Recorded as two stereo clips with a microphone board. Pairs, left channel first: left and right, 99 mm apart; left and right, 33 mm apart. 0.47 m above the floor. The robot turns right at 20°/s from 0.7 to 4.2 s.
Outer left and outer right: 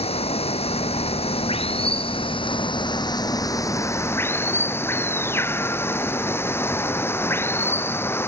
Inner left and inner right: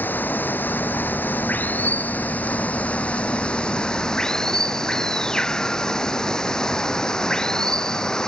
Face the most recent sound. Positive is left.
turn(degrees=155)